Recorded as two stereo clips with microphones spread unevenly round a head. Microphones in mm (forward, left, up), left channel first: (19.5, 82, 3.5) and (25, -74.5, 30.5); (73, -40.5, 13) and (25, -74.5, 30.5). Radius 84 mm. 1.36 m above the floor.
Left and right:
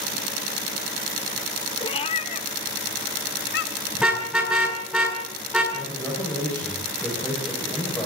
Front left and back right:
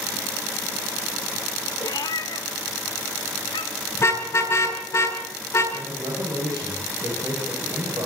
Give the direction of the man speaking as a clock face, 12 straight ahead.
6 o'clock.